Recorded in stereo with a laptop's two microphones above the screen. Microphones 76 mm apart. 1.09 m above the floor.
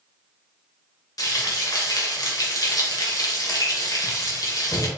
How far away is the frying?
About 1.5 m.